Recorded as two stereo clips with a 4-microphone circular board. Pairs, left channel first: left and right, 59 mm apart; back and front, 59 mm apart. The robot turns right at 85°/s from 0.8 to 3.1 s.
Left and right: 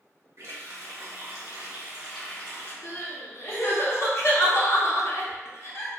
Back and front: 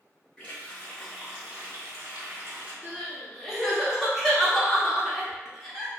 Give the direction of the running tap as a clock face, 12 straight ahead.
4 o'clock.